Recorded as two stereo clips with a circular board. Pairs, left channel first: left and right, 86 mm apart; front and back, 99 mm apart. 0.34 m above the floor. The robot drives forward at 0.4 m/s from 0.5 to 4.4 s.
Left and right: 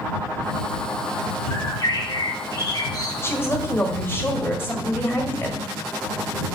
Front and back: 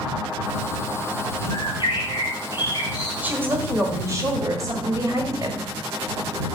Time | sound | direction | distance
1.5 | a bird | 40° left | 4 m
3.2 | a woman speaking | 120° left | 1.3 m